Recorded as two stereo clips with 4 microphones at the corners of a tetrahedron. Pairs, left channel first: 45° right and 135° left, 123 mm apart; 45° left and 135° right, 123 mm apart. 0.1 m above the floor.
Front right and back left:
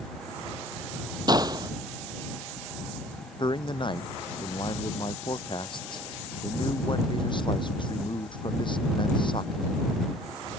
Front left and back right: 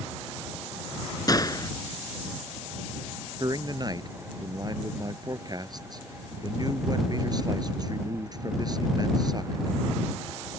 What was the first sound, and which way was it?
A gunshot, 90° left.